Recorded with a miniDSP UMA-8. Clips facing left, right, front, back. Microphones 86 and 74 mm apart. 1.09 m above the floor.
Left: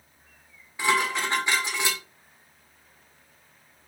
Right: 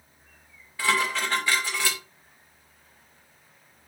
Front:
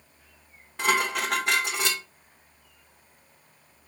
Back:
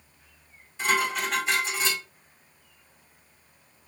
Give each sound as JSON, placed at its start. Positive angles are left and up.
{"t": 0.8, "sound": "dishes clattering", "azimuth_deg": 20, "distance_m": 2.0}